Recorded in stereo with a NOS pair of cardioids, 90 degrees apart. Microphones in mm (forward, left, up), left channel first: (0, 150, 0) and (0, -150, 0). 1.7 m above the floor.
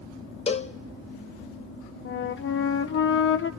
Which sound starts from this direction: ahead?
A cowbell, at 0.5 s.